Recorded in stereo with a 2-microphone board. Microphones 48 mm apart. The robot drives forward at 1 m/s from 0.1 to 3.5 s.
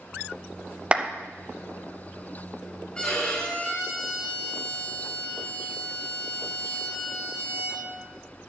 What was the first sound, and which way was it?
A clap, 25° right (ahead or behind).